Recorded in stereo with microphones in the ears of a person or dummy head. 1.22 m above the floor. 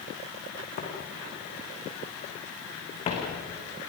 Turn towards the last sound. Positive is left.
turn(degrees=35)  # may be behind; listen again after turning